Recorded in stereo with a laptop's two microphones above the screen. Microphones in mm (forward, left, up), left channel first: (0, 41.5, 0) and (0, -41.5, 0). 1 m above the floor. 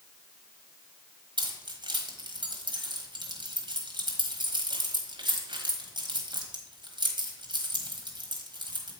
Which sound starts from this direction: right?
Keys jangling, at 1.4 s.